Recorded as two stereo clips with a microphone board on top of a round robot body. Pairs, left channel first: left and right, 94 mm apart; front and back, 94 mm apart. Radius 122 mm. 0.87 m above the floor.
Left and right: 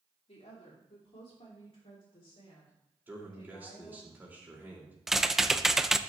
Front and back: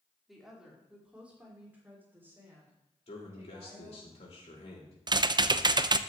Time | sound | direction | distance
0.3 | a woman speaking | 90° left | 2.5 m
3.1 | a man speaking | 20° right | 3 m
5.1 | typing on a keyboard | 175° right | 0.5 m